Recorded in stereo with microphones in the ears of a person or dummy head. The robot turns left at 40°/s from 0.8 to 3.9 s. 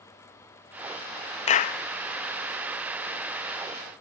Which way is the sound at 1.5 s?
35° left (ahead or behind).